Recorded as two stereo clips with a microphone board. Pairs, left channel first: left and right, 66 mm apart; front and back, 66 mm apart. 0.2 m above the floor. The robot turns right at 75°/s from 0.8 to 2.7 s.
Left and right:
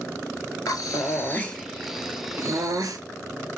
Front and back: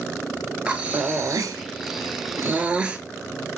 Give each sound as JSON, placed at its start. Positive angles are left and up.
{"t": 0.7, "sound": "breathing", "azimuth_deg": 110, "distance_m": 0.5}